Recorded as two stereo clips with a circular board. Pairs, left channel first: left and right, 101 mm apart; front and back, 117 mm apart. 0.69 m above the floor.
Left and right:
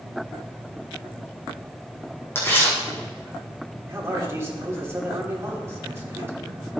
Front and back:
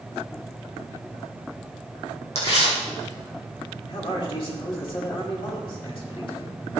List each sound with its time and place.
2.4 s tearing paper: 25° left, 4.5 m
3.9 s a man speaking: 30° right, 2.5 m